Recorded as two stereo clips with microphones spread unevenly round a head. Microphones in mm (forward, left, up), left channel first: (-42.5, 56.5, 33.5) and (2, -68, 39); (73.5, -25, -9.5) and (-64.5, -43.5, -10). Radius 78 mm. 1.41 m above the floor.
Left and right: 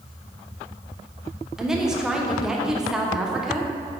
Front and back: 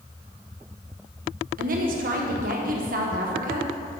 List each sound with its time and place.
1.6 s a woman speaking: 155° right, 1.3 m